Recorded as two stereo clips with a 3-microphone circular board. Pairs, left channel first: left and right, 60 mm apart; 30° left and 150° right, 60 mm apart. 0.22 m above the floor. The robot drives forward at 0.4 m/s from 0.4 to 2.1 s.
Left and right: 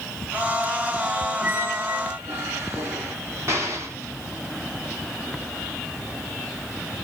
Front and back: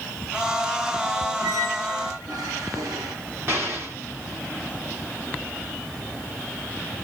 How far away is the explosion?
About 1.9 m.